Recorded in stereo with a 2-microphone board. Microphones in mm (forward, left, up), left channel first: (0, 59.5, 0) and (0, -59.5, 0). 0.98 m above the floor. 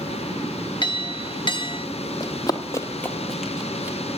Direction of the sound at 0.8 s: 45° left (ahead or behind).